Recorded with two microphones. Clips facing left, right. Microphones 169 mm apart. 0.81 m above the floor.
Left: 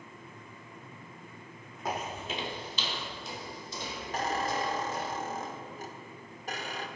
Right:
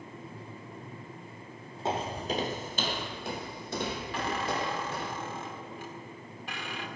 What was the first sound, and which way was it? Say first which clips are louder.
Footsteps: right 4 dB; 25° right (ahead or behind).